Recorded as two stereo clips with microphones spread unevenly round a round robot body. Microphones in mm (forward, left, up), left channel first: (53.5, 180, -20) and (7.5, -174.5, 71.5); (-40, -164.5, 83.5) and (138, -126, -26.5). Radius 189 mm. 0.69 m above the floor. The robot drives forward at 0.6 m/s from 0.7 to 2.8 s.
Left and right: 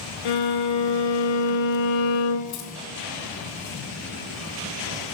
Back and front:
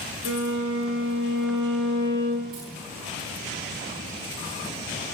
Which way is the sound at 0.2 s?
55° left.